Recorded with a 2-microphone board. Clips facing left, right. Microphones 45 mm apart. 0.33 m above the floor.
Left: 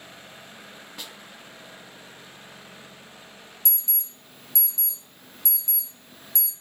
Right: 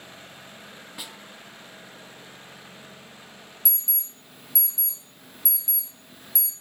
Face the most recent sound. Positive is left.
turn(degrees=-5)  # may be behind; listen again after turning